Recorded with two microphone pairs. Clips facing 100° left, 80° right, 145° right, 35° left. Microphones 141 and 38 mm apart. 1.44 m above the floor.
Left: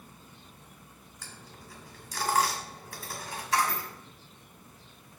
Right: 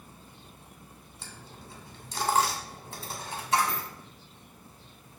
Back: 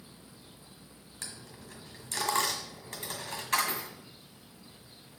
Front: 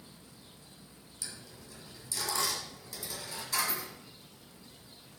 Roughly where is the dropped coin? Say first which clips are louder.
Right 2 dB, back 2 dB; behind right.